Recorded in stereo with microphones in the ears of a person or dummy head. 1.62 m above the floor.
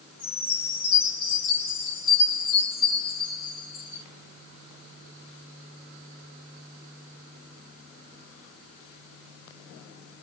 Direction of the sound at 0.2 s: 25° left (ahead or behind).